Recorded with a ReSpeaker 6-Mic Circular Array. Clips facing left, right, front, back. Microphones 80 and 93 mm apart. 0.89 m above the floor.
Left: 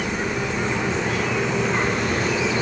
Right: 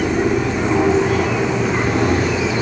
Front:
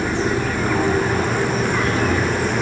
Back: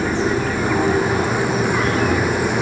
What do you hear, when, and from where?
0.0 s an aircraft: 95° right